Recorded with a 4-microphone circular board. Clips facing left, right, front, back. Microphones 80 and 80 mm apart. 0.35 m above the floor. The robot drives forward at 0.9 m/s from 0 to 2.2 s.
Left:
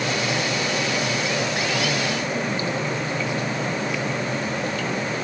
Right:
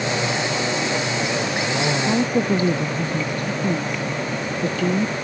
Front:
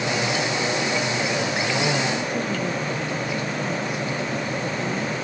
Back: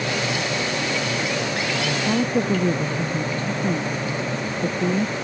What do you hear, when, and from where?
2.0 s a woman speaking: 130° right